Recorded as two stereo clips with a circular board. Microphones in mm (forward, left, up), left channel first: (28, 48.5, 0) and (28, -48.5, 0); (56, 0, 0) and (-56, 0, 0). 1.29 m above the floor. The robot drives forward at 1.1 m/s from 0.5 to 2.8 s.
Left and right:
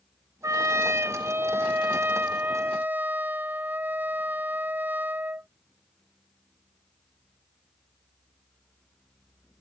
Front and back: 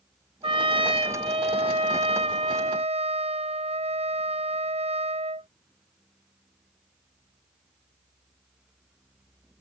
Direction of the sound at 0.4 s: 145° right.